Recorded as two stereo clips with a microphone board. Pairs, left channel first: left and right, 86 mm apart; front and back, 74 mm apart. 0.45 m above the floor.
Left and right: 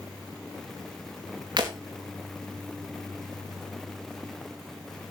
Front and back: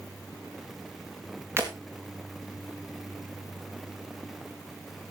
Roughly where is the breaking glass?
Behind right.